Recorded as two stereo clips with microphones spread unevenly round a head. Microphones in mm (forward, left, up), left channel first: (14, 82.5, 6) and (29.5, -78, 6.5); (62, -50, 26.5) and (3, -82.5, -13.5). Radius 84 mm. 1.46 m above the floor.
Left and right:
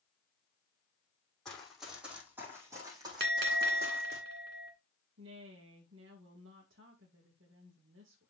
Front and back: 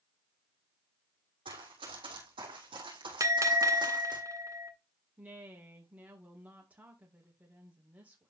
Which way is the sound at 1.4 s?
Straight behind.